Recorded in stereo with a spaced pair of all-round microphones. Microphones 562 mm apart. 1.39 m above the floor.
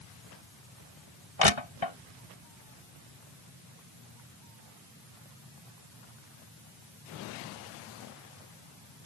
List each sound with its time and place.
1.4 s crushing: 55° left (ahead or behind)